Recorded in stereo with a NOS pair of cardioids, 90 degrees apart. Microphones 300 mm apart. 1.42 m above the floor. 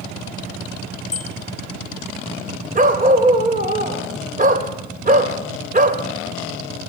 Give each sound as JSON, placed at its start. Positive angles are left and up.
{"t": 1.1, "sound": "a bicycle bell", "azimuth_deg": 20, "distance_m": 4.5}
{"t": 2.8, "sound": "a dog barking", "azimuth_deg": -30, "distance_m": 3.0}